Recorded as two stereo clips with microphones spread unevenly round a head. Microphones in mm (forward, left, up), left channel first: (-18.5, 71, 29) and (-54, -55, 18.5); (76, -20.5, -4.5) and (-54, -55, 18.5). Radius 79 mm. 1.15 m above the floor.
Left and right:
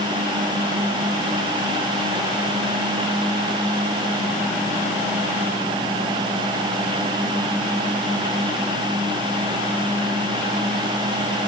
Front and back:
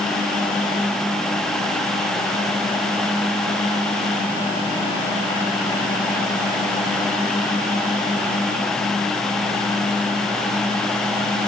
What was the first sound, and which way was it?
Only background noise.